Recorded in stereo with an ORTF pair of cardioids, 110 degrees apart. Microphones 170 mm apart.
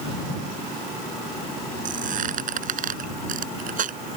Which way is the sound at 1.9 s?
50° right.